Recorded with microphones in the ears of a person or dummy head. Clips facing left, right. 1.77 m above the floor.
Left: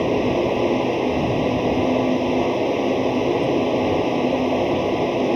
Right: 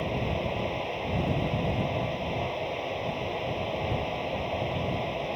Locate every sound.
0.0 s a fan: 65° left (ahead or behind)